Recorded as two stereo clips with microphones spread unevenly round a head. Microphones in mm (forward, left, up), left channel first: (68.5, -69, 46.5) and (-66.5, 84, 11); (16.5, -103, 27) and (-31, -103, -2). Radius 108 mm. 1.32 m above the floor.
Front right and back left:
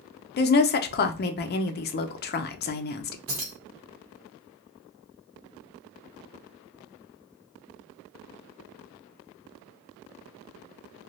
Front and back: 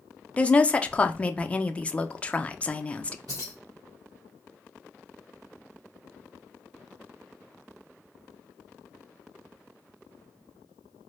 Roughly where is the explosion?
I don't hear an explosion.